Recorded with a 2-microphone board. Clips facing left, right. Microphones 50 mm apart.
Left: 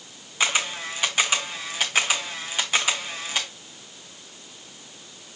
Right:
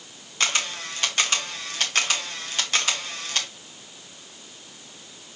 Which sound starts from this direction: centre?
A camera shutter, at 0.4 s.